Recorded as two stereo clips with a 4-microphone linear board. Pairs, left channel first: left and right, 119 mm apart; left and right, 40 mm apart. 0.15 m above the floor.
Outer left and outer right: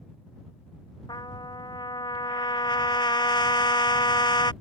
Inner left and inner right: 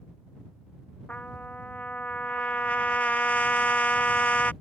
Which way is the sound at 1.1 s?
40° left (ahead or behind).